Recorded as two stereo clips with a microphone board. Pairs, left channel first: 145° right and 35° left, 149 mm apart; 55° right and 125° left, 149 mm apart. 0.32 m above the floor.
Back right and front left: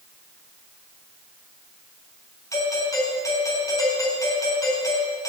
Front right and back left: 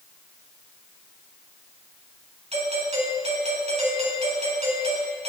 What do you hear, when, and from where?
2.5 s a doorbell: 150° left, 3.5 m